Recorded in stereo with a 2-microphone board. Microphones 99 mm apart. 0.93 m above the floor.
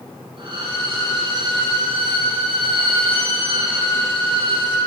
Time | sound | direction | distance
0.4 | a violin | 55° right (ahead or behind) | 6 m